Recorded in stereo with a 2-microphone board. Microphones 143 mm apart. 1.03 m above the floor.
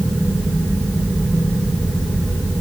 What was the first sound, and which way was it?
Only background noise.